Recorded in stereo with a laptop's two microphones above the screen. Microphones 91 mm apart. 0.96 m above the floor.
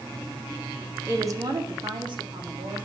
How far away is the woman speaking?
About 0.6 m.